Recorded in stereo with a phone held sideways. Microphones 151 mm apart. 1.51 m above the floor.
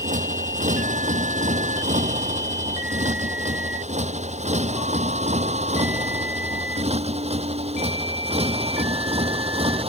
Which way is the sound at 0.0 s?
55° right (ahead or behind).